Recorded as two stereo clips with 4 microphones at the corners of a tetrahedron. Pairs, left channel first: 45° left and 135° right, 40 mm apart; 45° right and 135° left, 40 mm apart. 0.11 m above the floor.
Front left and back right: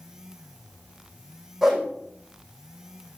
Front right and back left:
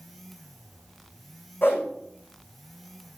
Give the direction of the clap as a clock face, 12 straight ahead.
I don't hear a clap.